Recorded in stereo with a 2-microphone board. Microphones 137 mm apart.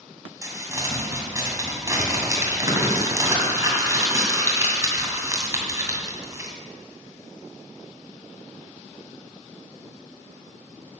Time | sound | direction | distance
0.4 | crumpling | 20° right (ahead or behind) | 2.5 m